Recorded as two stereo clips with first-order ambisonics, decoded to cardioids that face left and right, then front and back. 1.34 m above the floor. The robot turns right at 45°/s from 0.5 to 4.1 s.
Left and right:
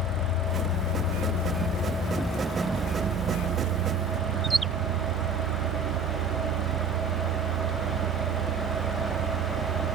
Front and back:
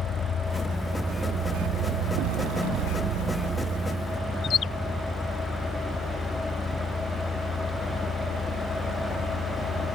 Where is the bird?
20° right.